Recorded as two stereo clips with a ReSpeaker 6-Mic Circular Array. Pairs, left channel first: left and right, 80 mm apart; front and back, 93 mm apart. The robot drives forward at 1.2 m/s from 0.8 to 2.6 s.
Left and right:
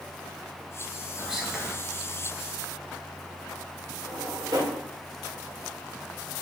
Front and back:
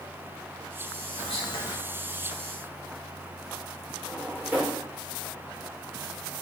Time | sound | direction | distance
1.2 | whispering | 5° right | 1.3 m
4.1 | a drawer | 110° right | 1.2 m